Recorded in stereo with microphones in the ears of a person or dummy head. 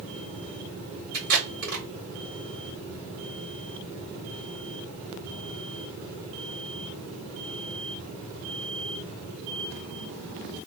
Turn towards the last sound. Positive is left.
turn(degrees=-55)  # may be behind; listen again after turning